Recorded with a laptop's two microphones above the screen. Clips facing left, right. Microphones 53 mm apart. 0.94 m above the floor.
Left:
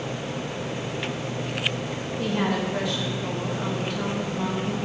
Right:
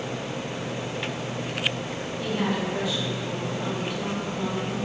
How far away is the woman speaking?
About 1.9 m.